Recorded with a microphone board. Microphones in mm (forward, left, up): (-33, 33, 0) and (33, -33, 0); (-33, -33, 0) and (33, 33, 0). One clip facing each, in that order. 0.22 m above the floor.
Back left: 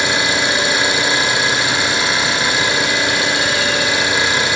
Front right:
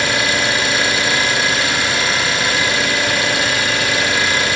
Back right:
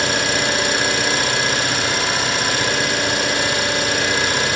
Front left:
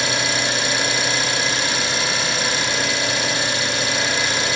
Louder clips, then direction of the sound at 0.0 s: Even, back right 3 dB; 155° right.